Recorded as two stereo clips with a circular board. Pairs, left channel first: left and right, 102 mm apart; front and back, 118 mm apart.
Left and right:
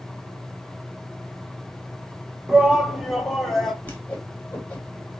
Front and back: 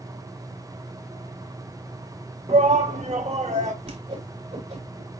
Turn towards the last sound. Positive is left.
turn(degrees=165)